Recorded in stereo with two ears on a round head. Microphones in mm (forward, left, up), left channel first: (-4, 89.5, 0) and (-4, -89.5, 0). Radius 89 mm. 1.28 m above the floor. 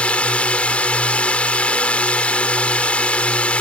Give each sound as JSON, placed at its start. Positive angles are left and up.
{"t": 0.0, "sound": "a drone", "side_deg": 5}